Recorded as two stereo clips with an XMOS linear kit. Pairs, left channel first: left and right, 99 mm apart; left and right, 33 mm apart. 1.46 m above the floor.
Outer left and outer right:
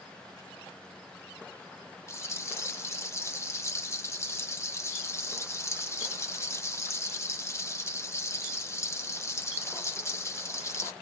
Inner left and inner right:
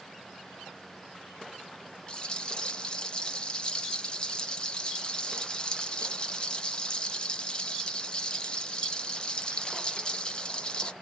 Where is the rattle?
25° left (ahead or behind), 0.5 m.